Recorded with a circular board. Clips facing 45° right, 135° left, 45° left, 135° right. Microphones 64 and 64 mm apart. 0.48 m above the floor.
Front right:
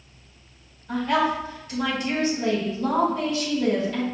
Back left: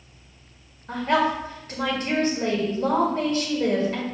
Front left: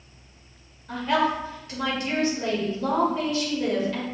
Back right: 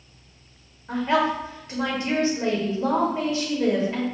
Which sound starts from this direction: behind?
A woman speaking, at 0.9 s.